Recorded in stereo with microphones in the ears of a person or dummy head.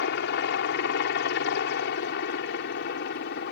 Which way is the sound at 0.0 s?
55° left (ahead or behind).